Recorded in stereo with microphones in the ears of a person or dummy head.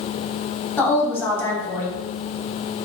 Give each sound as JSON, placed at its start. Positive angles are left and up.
{"t": 0.8, "sound": "a woman speaking", "side_deg": 20, "distance_m": 0.9}